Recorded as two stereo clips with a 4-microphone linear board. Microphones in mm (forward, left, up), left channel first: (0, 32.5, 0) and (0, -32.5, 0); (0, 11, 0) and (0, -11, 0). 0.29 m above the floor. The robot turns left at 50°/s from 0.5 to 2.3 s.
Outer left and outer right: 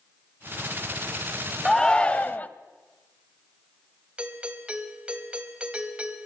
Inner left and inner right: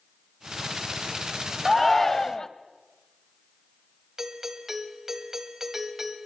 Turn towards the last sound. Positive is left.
turn(degrees=-15)  # may be behind; listen again after turning